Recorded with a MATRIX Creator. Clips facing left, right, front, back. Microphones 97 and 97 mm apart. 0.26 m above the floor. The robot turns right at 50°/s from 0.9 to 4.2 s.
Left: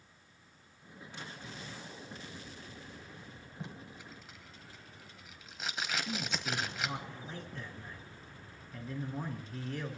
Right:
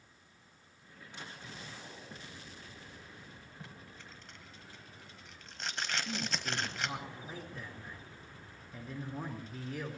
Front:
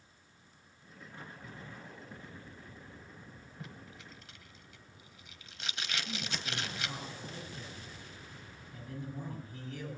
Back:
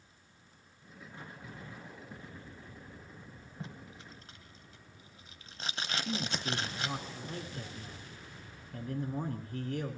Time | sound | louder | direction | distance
3.6 | tape being pulled | left 7 dB, back 3 dB | 140° left | 1.2 m
6.0 | a man speaking | left 1 dB, back 5 dB | 175° right | 3.5 m